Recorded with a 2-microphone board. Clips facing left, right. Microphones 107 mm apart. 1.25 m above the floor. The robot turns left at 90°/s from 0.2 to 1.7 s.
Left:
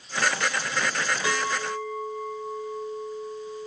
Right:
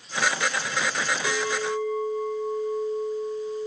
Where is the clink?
30° left, 1.3 m; by 3.7 s 15° right, 1.3 m.